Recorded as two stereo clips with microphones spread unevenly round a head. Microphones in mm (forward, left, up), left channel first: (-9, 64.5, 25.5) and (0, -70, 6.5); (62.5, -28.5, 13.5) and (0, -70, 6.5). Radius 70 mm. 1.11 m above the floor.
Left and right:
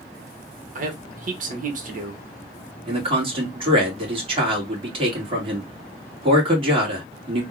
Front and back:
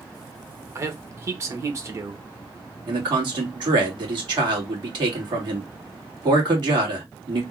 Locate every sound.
0.8 s a man speaking: 100° right, 1.3 m
2.9 s a man speaking: 135° right, 2 m